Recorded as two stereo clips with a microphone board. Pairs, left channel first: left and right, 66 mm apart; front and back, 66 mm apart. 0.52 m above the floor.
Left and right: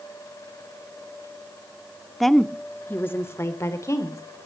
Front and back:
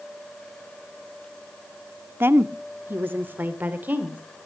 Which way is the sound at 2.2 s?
175° left.